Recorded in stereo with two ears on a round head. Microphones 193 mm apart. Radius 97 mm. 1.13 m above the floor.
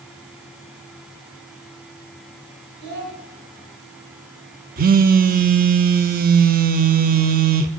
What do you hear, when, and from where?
2.8 s a child speaking: 55° right (ahead or behind), 5 m
4.8 s a phone buzzing: 40° right (ahead or behind), 0.8 m